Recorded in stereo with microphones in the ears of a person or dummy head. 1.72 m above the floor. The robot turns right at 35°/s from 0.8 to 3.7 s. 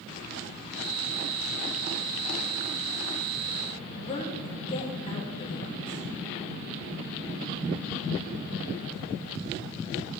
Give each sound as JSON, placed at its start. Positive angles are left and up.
{"t": 4.0, "sound": "a woman speaking", "side_deg": 30, "distance_m": 2.5}